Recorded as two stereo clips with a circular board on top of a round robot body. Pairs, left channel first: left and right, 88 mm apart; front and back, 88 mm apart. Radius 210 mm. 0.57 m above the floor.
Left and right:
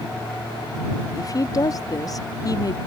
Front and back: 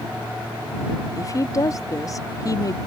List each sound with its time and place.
1.2 s a woman speaking: 45° left